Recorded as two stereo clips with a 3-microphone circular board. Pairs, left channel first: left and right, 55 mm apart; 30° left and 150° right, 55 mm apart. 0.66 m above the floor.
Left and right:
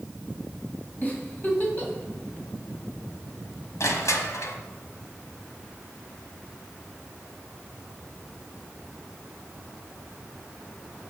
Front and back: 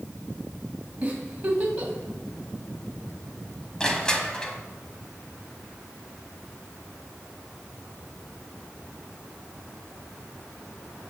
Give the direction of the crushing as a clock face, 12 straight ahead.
9 o'clock.